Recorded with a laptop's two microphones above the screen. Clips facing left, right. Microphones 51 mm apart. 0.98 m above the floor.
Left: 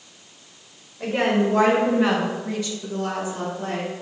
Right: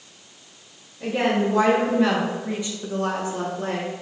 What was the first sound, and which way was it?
A woman speaking, 50° left (ahead or behind).